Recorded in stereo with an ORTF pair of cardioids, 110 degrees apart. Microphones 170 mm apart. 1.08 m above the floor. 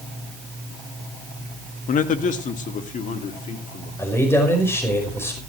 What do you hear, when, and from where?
1.9 s a man speaking: 50° left, 1.8 m; by 3.9 s 45° left, 3.5 m
4.0 s a man speaking: 15° left, 5.5 m